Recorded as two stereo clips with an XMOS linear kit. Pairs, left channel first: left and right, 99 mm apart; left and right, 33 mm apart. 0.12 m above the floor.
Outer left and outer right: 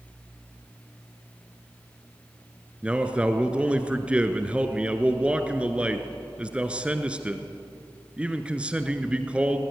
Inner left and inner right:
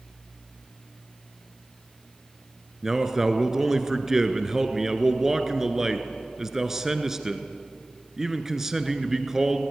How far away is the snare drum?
No snare drum in this recording.